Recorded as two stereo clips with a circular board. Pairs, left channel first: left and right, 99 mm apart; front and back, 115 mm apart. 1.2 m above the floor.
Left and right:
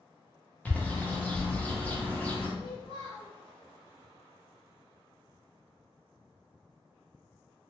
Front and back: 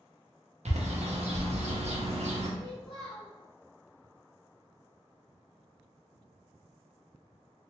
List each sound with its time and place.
0.7 s a bird: 165° left, 0.5 m
2.6 s a child speaking: 110° left, 1.2 m